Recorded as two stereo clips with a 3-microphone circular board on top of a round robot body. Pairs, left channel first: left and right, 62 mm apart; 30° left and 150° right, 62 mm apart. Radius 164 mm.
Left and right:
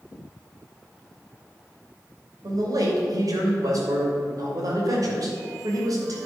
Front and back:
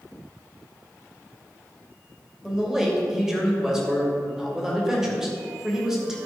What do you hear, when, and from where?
2.4 s a man speaking: 70° right, 2.5 m